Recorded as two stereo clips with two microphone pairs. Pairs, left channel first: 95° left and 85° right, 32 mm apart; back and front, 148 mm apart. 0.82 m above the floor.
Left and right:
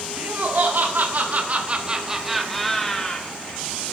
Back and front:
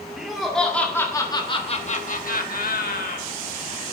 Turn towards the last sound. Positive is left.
turn(degrees=160)